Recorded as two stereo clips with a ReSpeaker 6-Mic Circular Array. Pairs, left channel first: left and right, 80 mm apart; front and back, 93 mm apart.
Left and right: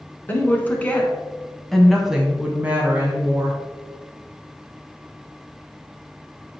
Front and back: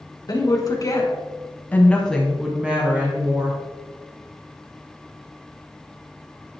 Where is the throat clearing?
No throat clearing in this recording.